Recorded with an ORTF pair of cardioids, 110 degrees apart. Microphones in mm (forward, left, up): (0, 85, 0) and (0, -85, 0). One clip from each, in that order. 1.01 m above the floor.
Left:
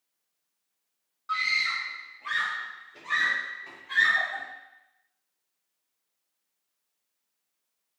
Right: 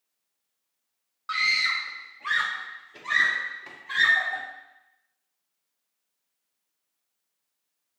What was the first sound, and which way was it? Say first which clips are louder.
A scream: right 3 dB; 40° right.